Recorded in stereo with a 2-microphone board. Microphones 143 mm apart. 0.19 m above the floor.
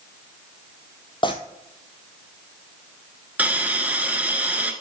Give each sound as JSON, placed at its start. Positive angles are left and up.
{"t": 1.2, "sound": "tearing paper", "side_deg": 35, "distance_m": 1.2}
{"t": 3.4, "sound": "a hiss", "side_deg": -10, "distance_m": 1.2}